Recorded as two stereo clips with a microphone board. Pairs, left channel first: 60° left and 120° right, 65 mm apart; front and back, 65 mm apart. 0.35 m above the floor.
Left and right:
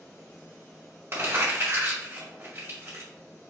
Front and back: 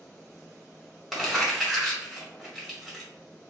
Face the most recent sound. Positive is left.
turn(degrees=-90)